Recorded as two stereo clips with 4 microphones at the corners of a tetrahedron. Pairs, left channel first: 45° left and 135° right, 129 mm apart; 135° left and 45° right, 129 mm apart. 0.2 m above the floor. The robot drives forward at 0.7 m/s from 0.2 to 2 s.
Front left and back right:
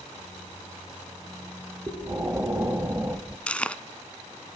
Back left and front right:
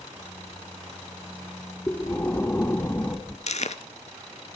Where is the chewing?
125° left, 1.0 m.